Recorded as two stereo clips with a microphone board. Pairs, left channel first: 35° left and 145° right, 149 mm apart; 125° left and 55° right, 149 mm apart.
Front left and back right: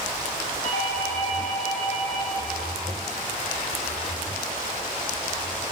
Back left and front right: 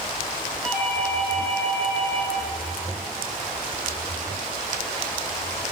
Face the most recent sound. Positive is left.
turn(degrees=40)